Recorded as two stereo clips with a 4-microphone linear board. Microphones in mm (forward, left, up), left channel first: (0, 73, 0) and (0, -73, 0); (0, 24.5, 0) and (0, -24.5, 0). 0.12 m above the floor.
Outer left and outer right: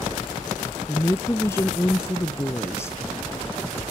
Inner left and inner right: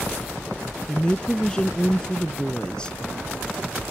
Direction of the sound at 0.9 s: 20° left (ahead or behind).